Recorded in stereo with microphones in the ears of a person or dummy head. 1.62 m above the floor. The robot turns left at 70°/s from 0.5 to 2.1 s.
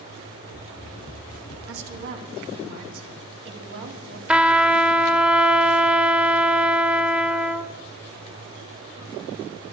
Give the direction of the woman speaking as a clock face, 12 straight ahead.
3 o'clock.